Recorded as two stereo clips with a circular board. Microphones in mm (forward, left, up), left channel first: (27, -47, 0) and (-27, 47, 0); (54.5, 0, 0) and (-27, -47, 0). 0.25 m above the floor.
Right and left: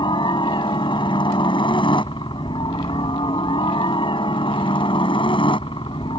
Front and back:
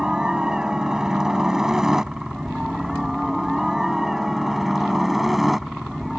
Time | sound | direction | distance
0.0 | a helicopter | 70° right | ?